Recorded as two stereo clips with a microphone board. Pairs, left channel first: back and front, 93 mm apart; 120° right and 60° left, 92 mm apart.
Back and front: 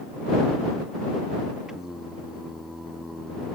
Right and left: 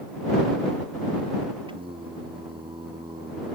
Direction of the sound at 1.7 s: 85° left.